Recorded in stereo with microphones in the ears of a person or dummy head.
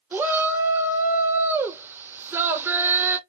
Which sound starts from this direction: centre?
A shout, at 0.1 s.